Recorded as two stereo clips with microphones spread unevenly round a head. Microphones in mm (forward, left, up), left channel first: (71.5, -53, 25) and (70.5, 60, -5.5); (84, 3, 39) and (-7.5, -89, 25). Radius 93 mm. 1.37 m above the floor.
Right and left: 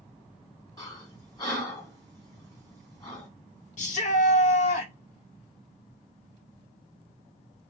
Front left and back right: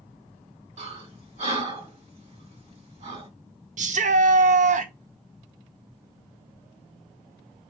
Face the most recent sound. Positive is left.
turn(degrees=-105)